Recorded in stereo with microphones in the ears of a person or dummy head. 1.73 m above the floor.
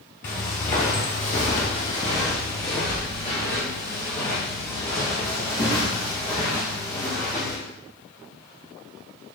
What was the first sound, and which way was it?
Footsteps, 20° left (ahead or behind).